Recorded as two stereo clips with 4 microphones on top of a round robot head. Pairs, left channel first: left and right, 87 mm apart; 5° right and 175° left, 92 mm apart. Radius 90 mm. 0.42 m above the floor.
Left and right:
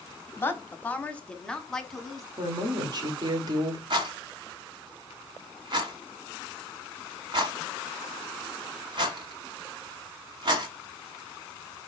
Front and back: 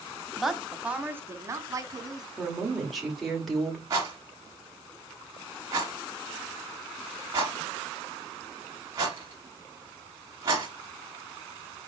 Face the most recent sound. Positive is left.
turn(degrees=-120)